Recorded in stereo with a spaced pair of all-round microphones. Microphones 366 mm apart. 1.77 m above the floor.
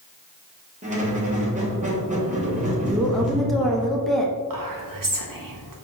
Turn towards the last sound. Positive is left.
turn(degrees=-60)  # may be behind; listen again after turning